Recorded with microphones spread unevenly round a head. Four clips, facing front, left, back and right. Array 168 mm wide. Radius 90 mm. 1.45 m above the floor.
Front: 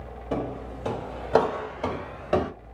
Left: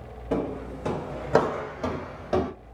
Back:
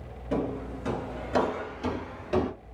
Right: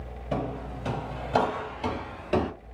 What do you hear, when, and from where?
0.3 s footsteps: 95° left, 2 m; by 2.5 s 10° right, 1.4 m